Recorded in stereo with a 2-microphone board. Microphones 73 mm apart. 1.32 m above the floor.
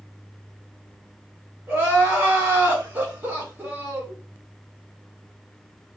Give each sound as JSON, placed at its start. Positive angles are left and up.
{"t": 1.7, "sound": "crying", "side_deg": -30, "distance_m": 1.5}